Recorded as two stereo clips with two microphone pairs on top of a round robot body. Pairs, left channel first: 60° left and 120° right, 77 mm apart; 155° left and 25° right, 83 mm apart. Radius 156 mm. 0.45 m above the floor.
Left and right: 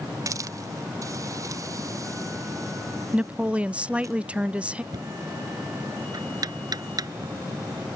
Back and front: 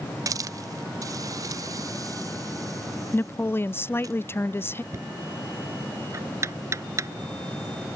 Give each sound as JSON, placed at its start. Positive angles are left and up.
{"t": 0.3, "sound": "a hiss", "azimuth_deg": -75}
{"t": 3.1, "sound": "a woman speaking", "azimuth_deg": 160}
{"t": 4.9, "sound": "knocking", "azimuth_deg": -80}